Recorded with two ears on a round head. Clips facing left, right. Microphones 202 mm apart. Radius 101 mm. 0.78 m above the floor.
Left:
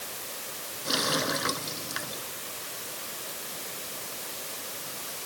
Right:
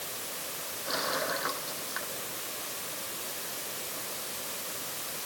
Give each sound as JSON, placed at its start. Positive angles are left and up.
{"t": 0.8, "sound": "a running tap", "side_deg": 45}